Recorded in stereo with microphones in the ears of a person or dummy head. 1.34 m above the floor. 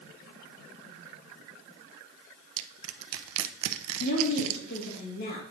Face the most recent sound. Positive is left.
turn(degrees=50)  # may be behind; listen again after turning